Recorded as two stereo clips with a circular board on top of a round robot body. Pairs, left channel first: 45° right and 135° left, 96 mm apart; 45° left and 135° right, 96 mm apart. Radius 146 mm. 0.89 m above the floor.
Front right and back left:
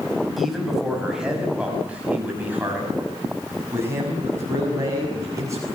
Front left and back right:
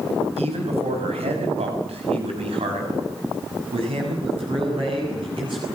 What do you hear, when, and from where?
0.4 s a man speaking: 135° right, 5.5 m; by 5.7 s 170° right, 7.5 m